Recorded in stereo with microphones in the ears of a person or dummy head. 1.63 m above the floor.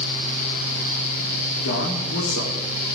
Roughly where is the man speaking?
Left.